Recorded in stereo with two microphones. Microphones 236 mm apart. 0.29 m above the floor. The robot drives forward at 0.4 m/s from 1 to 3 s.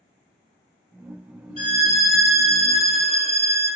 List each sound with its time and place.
1.6 s a violin: 30° right (ahead or behind), 0.7 m; by 3.7 s 15° right (ahead or behind), 1.2 m